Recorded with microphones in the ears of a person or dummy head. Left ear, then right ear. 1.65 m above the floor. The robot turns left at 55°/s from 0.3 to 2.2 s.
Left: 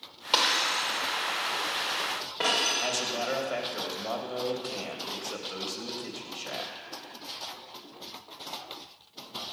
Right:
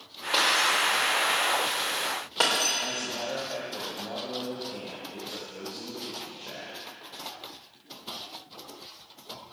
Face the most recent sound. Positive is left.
turn(degrees=70)  # may be behind; listen again after turning